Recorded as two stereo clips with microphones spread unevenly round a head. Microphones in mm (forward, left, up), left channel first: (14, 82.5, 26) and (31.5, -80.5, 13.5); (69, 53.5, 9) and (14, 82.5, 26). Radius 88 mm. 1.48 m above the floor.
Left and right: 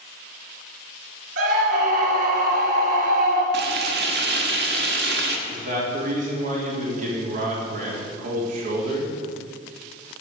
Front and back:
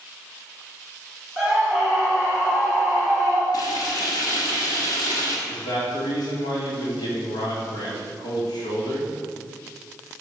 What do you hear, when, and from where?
1.4 s a scream: 120° right, 3.5 m
3.5 s frying: 80° right, 1.4 m
5.5 s a man speaking: 45° right, 4 m